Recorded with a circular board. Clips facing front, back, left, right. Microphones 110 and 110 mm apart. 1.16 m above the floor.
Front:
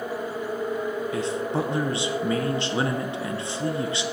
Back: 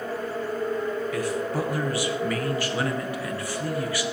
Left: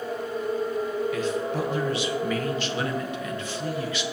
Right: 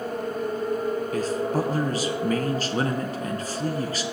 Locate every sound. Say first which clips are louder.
1.1 s a man speaking: front 1 dB, right 2 dB; 60° right, 0.8 m